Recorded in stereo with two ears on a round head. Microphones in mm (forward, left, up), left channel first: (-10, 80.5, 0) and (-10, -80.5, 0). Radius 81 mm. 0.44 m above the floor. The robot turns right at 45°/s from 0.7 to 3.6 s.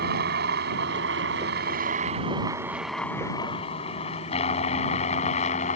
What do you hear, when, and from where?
0.0 s a helicopter: 60° right (ahead or behind); by 5.8 s 40° left (ahead or behind)